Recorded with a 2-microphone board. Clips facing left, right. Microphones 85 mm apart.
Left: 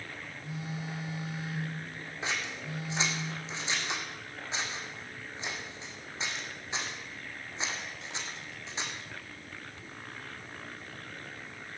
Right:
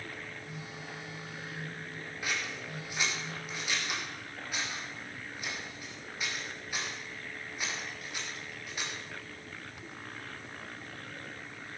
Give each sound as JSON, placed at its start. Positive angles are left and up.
{"t": 0.4, "sound": "a phone buzzing", "side_deg": 75, "distance_m": 4.5}
{"t": 2.2, "sound": "scissors", "side_deg": 25, "distance_m": 1.9}